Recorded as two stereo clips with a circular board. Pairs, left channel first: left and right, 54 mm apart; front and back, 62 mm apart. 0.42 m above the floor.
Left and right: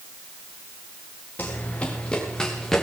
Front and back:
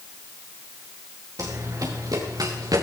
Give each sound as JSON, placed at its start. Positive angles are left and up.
{"t": 1.4, "sound": "running footsteps", "azimuth_deg": 145, "distance_m": 3.5}